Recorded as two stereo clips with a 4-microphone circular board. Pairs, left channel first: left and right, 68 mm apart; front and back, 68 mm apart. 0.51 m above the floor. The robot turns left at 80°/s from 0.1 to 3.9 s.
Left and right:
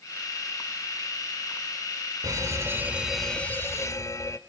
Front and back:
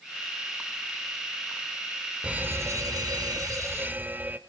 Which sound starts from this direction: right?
An alarm, at 2.2 s.